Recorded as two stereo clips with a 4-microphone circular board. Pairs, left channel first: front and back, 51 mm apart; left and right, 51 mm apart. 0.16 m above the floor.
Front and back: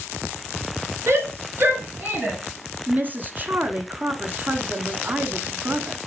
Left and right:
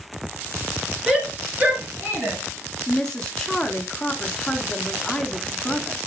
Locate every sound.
1.1 s a shout: 165° right, 2.5 m; by 2.4 s 120° right, 2.5 m
2.9 s a woman speaking: 165° left, 1.3 m